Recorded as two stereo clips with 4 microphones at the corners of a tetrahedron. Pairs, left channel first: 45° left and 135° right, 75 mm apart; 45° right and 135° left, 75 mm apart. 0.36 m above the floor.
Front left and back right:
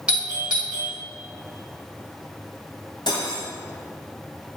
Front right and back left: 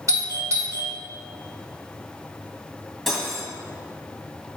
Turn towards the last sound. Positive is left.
turn(degrees=45)